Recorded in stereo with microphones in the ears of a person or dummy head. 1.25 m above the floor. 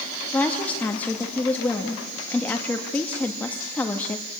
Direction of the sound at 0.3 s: 10° left (ahead or behind).